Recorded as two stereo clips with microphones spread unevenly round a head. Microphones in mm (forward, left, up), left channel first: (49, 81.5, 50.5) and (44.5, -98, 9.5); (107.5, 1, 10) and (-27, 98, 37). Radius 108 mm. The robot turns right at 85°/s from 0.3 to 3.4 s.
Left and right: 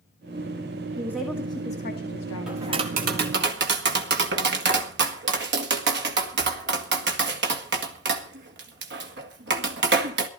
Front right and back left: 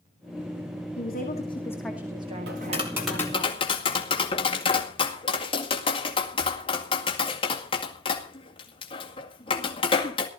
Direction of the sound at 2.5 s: 175° right.